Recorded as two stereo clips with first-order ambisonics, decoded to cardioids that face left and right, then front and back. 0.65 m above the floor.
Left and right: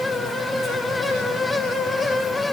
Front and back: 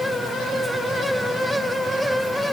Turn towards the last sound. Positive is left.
No sound to turn to.